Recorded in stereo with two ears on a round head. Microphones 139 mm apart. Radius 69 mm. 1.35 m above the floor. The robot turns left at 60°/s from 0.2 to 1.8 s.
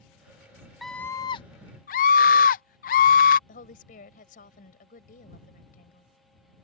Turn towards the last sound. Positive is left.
turn(degrees=60)  # may be behind; listen again after turning